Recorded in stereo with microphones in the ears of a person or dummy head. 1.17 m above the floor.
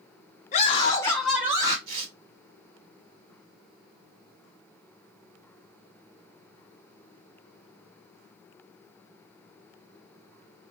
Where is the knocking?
I don't hear knocking.